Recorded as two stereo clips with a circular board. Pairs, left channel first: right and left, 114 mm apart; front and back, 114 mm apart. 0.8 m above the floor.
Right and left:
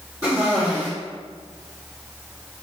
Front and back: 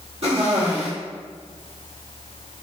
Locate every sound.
0.2 s a cough: 150° left, 1.2 m